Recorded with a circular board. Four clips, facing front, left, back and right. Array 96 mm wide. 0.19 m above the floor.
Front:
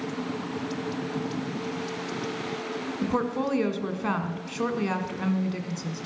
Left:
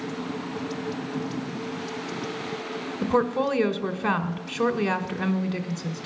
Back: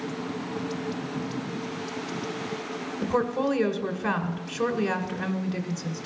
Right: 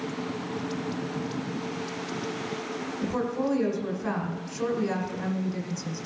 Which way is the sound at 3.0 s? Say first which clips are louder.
Left 5 dB, back 2 dB; 85° left.